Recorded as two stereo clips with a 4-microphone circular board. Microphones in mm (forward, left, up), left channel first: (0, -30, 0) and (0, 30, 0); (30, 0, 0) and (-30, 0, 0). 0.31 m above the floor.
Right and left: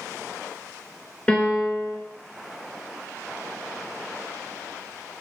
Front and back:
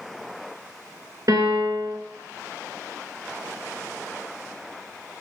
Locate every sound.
1.3 s a piano: 160° right, 0.8 m